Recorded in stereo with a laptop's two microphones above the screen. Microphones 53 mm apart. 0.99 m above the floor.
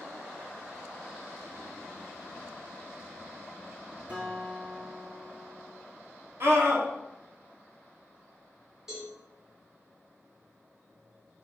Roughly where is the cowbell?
Centre.